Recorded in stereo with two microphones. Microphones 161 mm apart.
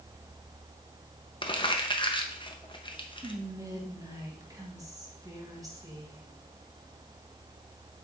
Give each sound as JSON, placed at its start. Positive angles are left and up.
{"t": 1.4, "sound": "crumpling", "side_deg": 30, "distance_m": 0.9}
{"t": 3.2, "sound": "whispering", "side_deg": -20, "distance_m": 1.8}